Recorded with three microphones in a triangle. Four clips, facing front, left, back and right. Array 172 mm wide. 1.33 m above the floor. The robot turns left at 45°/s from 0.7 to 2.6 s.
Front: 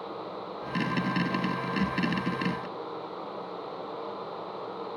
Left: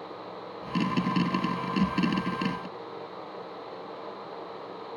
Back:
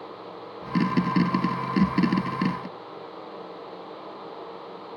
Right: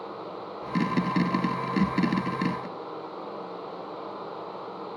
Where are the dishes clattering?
I don't hear dishes clattering.